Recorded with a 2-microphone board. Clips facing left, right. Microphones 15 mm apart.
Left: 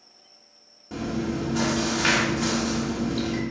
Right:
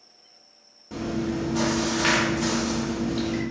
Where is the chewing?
10° right (ahead or behind), 0.8 m.